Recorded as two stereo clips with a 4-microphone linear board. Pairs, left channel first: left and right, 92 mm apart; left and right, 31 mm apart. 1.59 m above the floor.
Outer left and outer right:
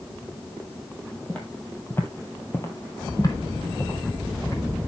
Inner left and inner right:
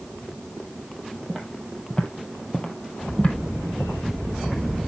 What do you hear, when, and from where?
1.3 s footsteps: 10° left (ahead or behind), 2.5 m; by 4.9 s 30° left (ahead or behind), 3.5 m